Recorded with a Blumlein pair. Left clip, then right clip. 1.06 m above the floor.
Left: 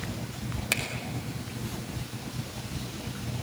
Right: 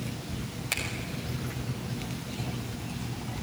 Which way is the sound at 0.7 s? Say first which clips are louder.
Left 2 dB; 15° left.